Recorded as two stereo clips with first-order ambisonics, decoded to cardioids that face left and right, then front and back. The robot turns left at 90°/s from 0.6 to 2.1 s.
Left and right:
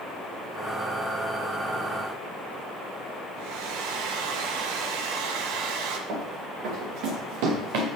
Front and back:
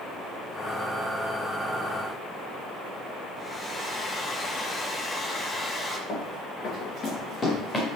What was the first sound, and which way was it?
A hair dryer, 75° right.